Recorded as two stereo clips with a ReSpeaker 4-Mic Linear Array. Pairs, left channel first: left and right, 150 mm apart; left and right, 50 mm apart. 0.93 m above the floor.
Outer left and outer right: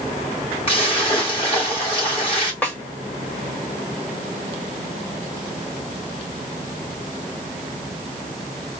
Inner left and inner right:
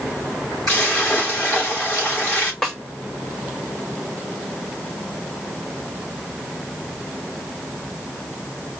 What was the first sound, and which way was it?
A splash, 40° left (ahead or behind).